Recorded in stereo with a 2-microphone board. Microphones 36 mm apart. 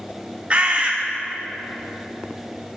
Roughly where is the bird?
Right.